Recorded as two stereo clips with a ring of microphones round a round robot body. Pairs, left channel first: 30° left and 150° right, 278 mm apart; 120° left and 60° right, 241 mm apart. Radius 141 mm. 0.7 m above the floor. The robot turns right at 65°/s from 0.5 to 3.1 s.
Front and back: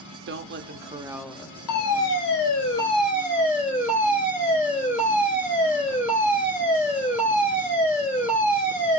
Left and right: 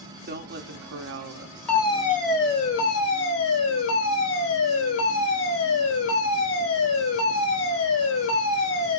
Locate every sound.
0.3 s a woman speaking: 110° right, 0.8 m; by 2.5 s 20° left, 0.8 m
1.7 s a fire alarm: 35° left, 4 m; by 9.0 s 125° left, 4 m